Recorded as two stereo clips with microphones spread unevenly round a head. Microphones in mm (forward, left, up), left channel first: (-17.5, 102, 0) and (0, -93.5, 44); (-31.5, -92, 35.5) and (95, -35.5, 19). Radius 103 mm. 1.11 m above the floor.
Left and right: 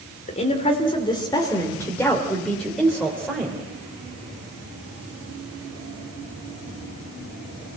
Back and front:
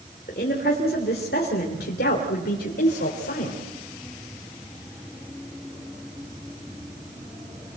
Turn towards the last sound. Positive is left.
turn(degrees=-165)